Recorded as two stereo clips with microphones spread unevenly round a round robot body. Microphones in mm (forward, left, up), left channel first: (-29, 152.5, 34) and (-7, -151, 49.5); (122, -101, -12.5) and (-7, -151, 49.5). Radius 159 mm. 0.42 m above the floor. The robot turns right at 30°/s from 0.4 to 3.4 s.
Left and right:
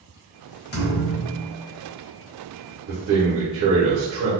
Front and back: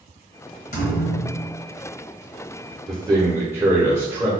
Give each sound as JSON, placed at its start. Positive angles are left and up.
{"t": 0.7, "sound": "a thud", "azimuth_deg": 35, "distance_m": 0.8}
{"t": 2.9, "sound": "a man speaking", "azimuth_deg": -75, "distance_m": 1.0}